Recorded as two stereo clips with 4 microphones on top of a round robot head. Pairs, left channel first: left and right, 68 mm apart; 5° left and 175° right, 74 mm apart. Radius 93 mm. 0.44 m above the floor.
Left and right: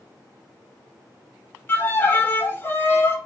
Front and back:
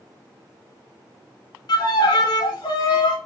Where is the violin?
30° left, 0.5 m.